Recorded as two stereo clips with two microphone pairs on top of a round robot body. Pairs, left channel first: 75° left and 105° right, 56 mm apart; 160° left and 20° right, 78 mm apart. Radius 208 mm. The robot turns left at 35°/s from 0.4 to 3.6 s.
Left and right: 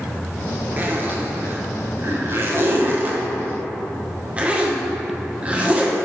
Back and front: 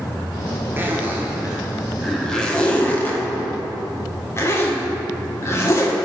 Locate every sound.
0.8 s a zipper: 65° right, 1.1 m; by 5.9 s 165° right, 1.1 m